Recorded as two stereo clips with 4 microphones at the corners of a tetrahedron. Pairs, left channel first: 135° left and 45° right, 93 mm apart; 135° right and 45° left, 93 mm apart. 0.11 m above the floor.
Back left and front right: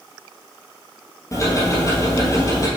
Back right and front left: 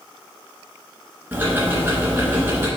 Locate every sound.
1.3 s ticking: 105° left, 2 m